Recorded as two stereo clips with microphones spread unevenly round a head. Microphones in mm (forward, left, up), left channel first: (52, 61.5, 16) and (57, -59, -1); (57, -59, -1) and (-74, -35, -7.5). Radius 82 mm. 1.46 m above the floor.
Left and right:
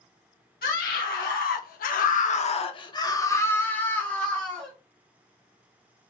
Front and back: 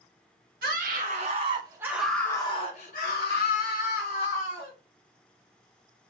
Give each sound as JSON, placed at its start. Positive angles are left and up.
{"t": 0.6, "sound": "a scream", "azimuth_deg": 130, "distance_m": 1.0}